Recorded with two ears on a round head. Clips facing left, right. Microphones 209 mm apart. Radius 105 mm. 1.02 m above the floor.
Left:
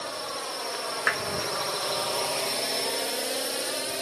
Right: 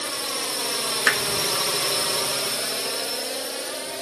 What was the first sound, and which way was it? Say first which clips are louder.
A drone: right 3 dB; 40° right (ahead or behind).